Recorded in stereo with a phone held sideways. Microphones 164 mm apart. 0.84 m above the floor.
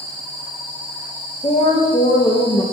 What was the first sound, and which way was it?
A woman speaking, 35° left (ahead or behind).